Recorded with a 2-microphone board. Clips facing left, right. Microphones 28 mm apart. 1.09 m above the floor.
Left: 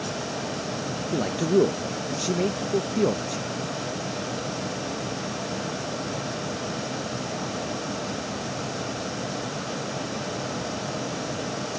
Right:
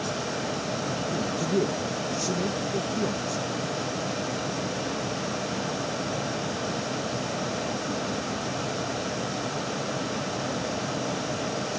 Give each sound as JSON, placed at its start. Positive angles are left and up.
{"t": 1.1, "sound": "a man speaking", "side_deg": 45}